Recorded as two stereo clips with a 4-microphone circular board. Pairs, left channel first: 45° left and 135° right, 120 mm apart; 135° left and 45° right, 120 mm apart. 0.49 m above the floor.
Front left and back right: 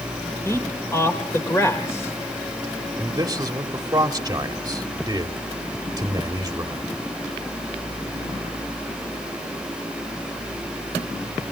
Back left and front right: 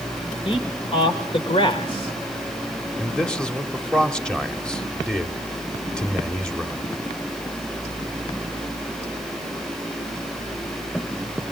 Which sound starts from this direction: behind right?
A man speaking, at 3.0 s.